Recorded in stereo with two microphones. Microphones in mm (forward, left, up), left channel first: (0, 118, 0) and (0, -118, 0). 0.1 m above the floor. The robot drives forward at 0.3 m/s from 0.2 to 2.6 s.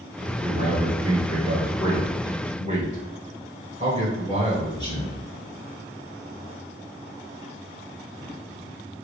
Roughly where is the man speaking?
Right.